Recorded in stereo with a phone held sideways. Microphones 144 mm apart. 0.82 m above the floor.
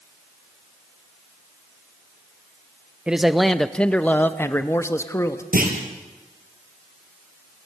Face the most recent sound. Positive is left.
turn(degrees=-80)